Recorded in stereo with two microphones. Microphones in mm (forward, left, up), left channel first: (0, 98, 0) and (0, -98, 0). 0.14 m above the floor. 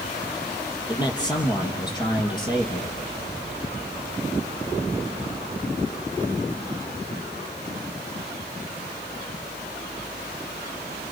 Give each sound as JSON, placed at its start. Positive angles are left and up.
{"t": 0.9, "sound": "a man speaking", "side_deg": 25, "distance_m": 5.0}